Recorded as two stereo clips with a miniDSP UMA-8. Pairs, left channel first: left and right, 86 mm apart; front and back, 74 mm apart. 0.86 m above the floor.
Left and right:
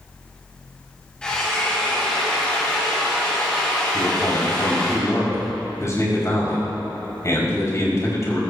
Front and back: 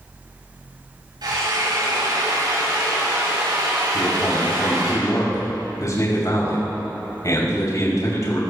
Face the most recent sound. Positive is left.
turn(degrees=40)